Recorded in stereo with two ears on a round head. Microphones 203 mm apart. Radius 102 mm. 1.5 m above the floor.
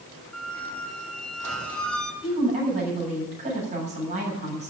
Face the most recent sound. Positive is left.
turn(degrees=-30)  # may be behind; listen again after turning